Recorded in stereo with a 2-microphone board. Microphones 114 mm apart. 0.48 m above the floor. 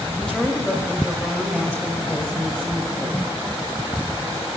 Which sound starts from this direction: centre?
A woman speaking, at 0.2 s.